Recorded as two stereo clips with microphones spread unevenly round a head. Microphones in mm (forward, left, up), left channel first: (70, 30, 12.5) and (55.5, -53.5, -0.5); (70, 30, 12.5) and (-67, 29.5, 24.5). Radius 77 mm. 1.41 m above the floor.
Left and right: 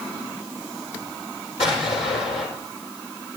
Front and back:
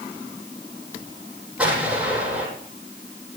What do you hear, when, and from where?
1.6 s an explosion: 100° left, 10 m